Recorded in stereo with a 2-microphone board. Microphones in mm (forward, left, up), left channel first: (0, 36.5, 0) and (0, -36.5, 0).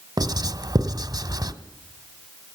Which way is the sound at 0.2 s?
55° right (ahead or behind).